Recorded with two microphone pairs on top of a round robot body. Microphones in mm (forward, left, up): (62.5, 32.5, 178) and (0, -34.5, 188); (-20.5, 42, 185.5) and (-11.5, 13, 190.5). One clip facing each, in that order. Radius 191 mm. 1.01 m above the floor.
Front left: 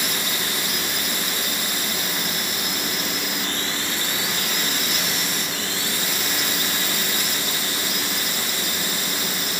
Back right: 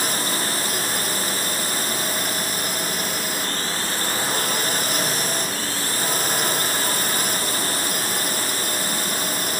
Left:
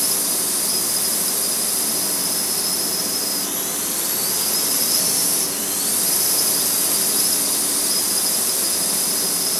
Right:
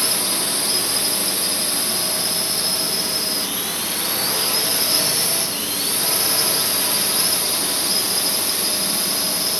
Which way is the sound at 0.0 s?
110° right.